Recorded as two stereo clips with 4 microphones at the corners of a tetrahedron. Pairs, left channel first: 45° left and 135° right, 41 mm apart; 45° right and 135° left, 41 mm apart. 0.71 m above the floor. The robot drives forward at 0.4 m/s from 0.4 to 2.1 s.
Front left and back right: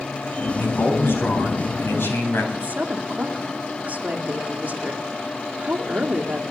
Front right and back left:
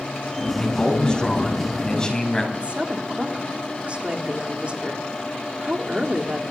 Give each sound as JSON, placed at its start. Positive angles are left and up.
{"t": 0.6, "sound": "a man speaking", "azimuth_deg": 25, "distance_m": 6.0}
{"t": 2.5, "sound": "a woman speaking", "azimuth_deg": -175, "distance_m": 1.7}